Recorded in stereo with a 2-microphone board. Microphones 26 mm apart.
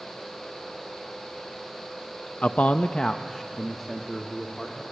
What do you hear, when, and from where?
2.4 s a man speaking: 65° left (ahead or behind), 0.6 m; by 4.8 s 5° right (ahead or behind), 2.5 m